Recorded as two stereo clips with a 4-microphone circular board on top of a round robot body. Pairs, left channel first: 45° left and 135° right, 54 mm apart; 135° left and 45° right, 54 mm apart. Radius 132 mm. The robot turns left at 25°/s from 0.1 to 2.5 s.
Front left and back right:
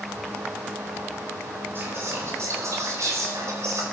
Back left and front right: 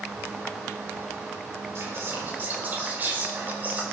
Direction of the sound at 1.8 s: 85° right.